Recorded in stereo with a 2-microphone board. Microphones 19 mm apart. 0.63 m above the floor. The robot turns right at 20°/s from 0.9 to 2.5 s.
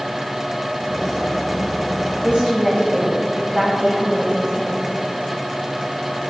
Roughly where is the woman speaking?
Right.